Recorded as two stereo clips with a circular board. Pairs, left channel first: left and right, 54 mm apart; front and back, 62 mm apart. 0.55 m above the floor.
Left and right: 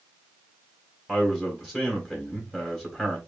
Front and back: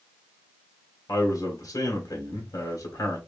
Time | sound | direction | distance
1.1 | a man speaking | 10° right | 2.5 m